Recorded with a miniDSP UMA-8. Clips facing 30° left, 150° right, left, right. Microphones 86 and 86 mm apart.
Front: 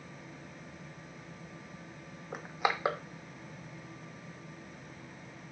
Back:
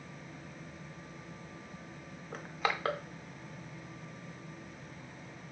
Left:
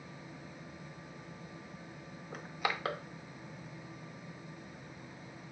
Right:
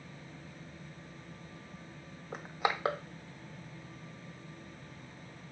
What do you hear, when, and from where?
2.3 s crushing: 40° right, 0.5 m